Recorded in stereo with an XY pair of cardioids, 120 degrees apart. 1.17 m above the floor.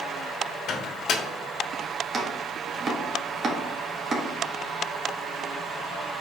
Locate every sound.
0.7 s a microwave: 55° left, 1.4 m
2.1 s chopping: 35° right, 1.5 m